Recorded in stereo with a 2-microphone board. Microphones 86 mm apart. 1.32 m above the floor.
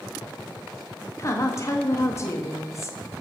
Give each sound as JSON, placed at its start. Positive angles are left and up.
{"t": 1.2, "sound": "a woman speaking", "side_deg": 35, "distance_m": 0.7}